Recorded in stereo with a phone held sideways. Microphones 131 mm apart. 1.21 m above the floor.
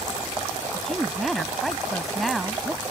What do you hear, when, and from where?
0.7 s a woman speaking: centre (ahead or behind)